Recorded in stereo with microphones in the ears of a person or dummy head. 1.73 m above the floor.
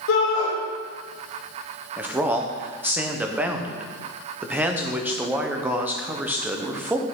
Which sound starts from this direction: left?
A shout, at 0.1 s.